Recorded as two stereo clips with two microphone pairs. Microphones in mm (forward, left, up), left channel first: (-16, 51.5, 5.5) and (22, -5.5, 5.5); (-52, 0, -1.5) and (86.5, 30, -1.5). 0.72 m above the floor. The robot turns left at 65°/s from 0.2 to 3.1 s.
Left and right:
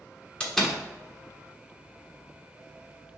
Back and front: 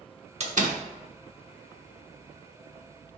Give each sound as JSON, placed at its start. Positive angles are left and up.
{"t": 0.4, "sound": "a door slam", "azimuth_deg": 50, "distance_m": 1.2}